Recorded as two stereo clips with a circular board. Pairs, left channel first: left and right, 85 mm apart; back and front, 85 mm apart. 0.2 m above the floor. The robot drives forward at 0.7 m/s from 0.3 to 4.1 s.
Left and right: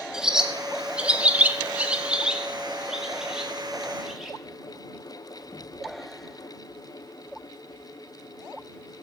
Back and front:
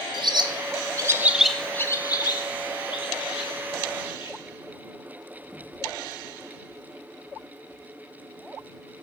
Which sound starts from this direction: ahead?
A bird, at 0.1 s.